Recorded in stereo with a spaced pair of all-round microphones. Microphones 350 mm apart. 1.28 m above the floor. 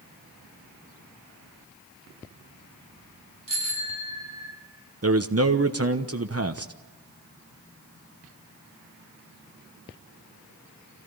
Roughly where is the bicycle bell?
Left.